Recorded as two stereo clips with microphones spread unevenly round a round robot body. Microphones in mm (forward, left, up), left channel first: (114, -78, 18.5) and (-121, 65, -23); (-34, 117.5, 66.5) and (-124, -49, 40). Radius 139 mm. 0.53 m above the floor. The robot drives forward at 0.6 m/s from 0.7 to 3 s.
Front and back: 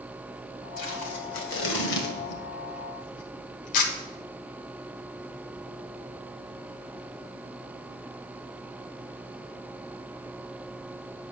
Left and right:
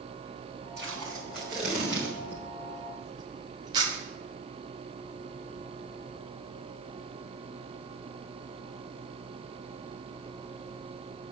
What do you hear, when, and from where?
0.8 s tape being pulled: 25° right, 2.5 m; by 3.9 s 50° right, 1.5 m